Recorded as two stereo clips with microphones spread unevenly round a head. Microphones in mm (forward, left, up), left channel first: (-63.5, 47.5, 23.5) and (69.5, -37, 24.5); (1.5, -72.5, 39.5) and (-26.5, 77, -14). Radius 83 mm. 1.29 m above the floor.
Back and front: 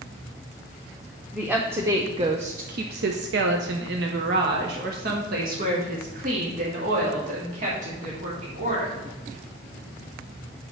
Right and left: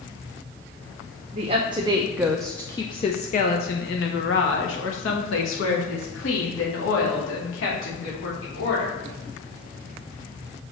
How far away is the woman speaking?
About 1.0 m.